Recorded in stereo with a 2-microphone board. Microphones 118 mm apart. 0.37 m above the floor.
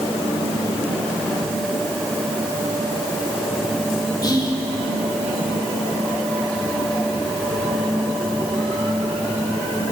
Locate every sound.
4.2 s whispering: 35° left (ahead or behind), 1.0 m